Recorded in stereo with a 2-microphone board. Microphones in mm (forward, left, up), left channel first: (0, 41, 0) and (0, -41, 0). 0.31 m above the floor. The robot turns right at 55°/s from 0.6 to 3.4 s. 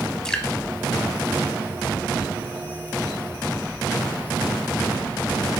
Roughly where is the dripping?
Centre.